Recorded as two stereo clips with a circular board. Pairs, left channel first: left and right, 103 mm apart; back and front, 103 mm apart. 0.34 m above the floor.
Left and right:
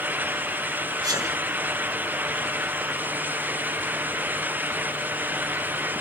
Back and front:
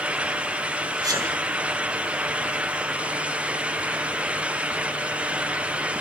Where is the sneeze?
45° right, 3 m.